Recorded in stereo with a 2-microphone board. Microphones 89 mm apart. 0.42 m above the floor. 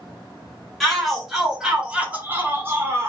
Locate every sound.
0.8 s a shout: centre (ahead or behind), 1.2 m; by 3.1 s 30° right (ahead or behind), 0.9 m